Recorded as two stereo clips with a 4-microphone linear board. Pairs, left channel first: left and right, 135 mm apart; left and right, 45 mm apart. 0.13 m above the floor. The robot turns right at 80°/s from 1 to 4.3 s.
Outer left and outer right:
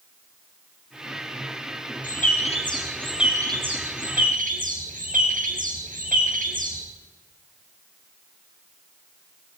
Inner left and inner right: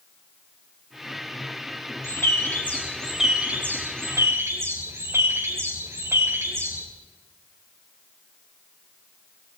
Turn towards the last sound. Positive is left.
turn(degrees=-85)